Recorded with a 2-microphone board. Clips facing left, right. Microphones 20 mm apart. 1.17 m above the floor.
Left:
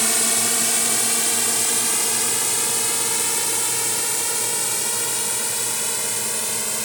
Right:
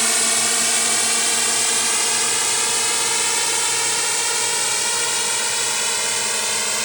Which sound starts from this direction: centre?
A drone, at 0.0 s.